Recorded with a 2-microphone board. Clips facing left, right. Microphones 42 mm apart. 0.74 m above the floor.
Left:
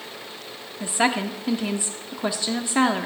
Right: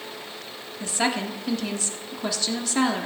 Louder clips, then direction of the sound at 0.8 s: Left 3 dB; 20° left (ahead or behind).